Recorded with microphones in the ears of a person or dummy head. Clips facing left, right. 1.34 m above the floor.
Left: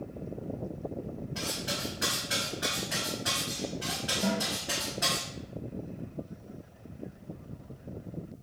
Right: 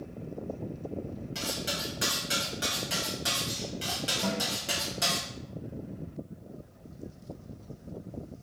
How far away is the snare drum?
About 0.5 m.